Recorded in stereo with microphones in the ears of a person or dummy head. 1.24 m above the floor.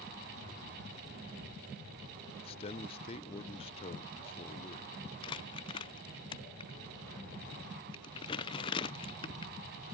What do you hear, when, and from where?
2.4 s a man speaking: 30° left (ahead or behind), 0.6 m
5.2 s crumpling: 25° left (ahead or behind), 0.6 m